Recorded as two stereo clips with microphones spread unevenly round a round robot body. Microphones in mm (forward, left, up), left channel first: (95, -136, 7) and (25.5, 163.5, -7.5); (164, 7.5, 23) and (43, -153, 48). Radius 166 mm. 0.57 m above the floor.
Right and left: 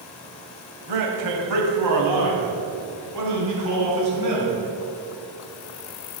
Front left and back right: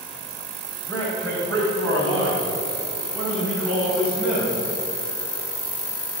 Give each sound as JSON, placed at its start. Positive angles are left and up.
{"t": 0.9, "sound": "a man speaking", "azimuth_deg": 130, "distance_m": 2.5}